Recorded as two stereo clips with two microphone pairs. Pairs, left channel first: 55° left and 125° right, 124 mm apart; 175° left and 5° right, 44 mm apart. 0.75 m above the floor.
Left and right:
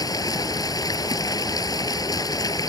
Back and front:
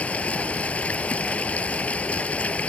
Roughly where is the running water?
Behind left.